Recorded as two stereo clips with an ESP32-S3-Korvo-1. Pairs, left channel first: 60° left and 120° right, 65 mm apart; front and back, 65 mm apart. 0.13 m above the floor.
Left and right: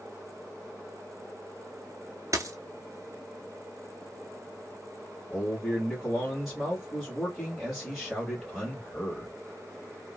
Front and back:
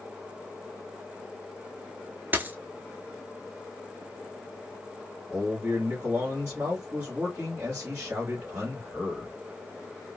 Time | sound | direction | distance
2.3 | a dropped coin | 125° right | 0.5 m
5.3 | a man speaking | 155° left | 1.9 m